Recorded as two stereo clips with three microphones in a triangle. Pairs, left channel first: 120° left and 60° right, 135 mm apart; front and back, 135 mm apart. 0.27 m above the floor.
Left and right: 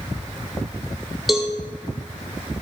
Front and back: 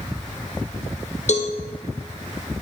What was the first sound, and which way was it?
A cowbell, 30° left.